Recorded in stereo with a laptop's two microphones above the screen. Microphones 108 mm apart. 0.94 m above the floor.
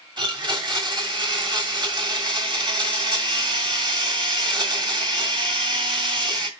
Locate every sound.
0.2 s a blender: 40° right (ahead or behind), 2 m